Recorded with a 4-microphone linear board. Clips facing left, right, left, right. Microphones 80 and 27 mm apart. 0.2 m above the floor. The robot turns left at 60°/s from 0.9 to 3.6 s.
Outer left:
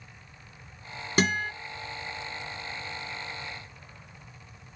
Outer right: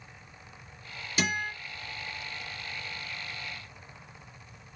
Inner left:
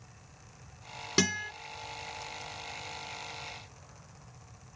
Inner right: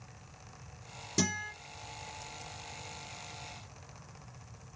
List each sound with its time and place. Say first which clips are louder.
1.2 s a guitar: outer left 5 dB, inner left 4 dB; 55° left (ahead or behind), 2.5 m; by 1.5 s 40° left (ahead or behind), 2.5 m